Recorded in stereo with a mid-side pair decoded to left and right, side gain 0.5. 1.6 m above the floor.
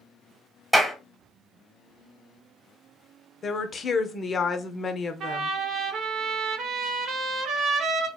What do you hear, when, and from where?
0.7 s a clap: 5° right, 1.2 m
3.4 s a woman speaking: 40° left, 0.6 m
5.2 s a trumpet: 60° right, 0.7 m